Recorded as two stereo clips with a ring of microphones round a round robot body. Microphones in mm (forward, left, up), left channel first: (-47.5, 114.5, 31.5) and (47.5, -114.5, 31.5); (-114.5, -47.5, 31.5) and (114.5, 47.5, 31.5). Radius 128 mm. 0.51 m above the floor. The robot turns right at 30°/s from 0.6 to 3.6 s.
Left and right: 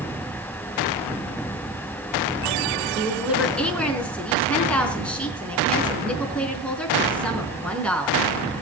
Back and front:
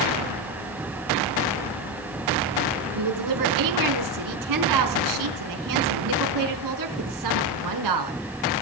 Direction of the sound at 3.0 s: 5° left.